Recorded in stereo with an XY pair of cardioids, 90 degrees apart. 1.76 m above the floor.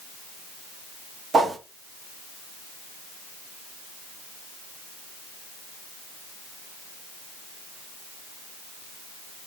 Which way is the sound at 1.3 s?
50° right.